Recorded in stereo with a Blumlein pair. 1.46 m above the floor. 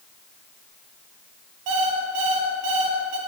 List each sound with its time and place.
1.7 s an alarm clock: 40° right, 1.6 m